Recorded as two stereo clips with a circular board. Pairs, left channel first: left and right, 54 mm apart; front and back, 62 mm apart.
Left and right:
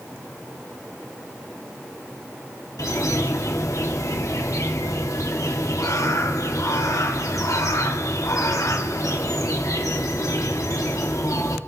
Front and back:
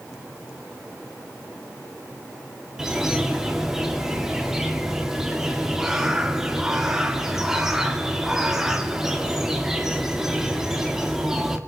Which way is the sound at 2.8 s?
95° left.